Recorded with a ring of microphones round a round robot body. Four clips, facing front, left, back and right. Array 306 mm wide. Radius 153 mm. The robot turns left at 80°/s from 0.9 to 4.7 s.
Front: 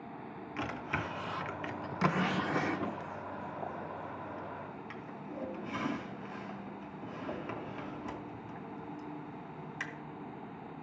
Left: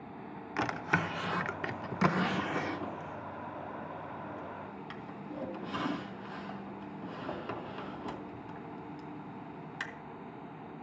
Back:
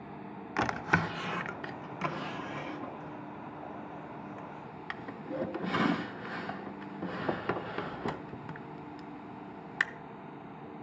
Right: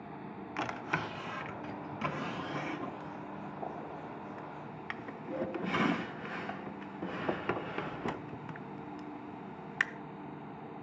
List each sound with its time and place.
0.6 s a drawer: 160° left, 0.5 m; by 9.8 s 145° right, 0.5 m